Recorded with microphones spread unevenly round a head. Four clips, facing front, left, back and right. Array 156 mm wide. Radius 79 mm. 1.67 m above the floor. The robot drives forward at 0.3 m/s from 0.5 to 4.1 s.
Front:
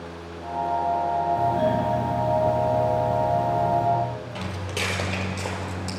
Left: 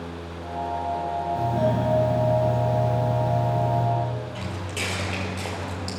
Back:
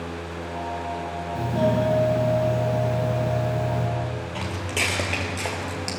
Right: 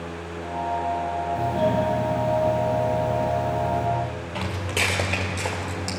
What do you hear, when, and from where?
1.4 s a doorbell: 170° left, 3 m; by 3.9 s 175° left, 3.5 m
4.3 s footsteps: 135° right, 2.0 m; by 6.0 s 155° left, 1.7 m